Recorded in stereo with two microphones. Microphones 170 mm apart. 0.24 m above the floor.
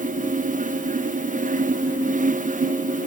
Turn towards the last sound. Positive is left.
No sound to turn to.